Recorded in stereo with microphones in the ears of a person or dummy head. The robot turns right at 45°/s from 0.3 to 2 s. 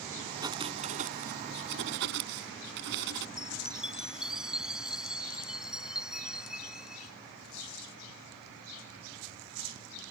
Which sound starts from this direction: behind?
Writing, at 0.4 s.